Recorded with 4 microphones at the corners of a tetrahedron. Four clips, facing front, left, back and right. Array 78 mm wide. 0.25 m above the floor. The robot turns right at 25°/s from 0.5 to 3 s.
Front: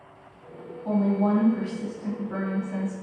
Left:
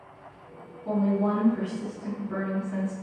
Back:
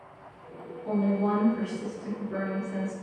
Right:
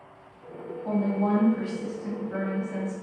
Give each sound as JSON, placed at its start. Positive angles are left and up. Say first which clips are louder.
{"t": 0.8, "sound": "a woman speaking", "louder": "left 1 dB, front 3 dB", "azimuth_deg": -55, "distance_m": 1.9}